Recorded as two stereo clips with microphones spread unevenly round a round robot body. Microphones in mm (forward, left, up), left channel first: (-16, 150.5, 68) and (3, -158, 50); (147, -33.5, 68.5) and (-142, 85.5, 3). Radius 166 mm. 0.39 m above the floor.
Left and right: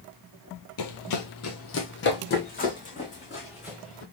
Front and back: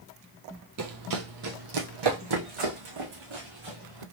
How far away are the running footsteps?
About 0.9 m.